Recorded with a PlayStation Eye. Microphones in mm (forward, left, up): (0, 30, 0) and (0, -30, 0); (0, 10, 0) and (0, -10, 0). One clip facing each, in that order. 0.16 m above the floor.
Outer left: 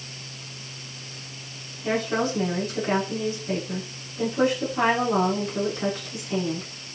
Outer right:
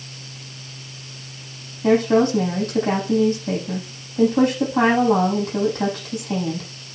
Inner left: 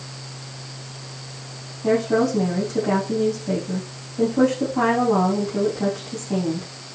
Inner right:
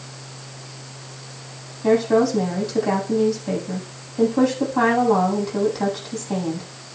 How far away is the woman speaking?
About 8 m.